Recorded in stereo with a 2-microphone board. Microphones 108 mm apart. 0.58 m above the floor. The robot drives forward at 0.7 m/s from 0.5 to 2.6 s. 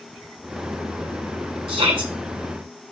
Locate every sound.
1.7 s a shout: 65° right (ahead or behind), 3 m; by 2.1 s 60° right (ahead or behind), 3 m